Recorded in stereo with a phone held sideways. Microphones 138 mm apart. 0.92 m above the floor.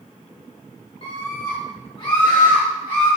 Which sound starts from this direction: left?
A scream, at 1.0 s.